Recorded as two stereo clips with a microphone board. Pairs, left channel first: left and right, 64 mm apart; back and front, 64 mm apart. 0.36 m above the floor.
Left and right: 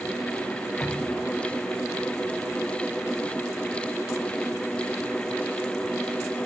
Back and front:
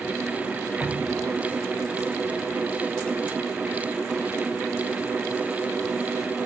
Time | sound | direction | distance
0.8 | dripping | 110° left | 1.1 m